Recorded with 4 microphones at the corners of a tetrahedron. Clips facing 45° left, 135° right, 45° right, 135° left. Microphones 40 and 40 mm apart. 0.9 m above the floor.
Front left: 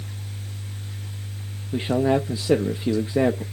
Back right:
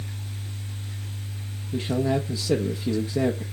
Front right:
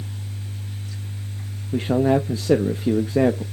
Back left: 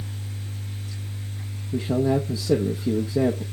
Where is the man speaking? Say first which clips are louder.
Front left 4 dB, front right 4 dB; 10° right, 0.7 m.